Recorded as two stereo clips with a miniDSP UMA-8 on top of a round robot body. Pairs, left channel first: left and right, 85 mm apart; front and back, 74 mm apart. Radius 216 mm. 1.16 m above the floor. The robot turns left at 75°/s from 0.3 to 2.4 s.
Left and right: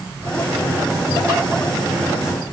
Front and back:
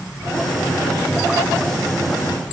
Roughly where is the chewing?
I don't hear chewing.